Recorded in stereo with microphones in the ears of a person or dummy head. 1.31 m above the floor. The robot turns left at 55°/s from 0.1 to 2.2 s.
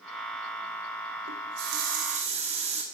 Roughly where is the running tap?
Right.